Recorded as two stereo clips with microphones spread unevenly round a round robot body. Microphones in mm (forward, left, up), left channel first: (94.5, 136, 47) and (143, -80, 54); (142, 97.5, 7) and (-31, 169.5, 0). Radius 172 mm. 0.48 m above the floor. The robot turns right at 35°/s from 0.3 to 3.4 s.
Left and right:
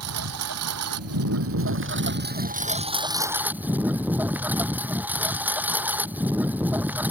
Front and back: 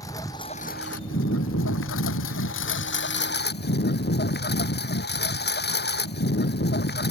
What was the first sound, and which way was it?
A lawn mower, 105° right.